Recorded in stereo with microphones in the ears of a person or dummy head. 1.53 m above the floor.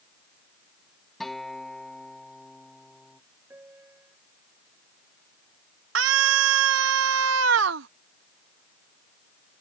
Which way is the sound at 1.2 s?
Centre (ahead or behind).